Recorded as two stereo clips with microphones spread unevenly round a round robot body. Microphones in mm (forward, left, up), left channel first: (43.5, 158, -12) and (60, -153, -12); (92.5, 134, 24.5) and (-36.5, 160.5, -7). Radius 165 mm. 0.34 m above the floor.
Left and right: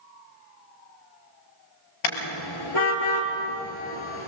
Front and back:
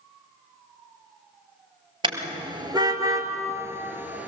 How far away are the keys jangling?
I don't hear keys jangling.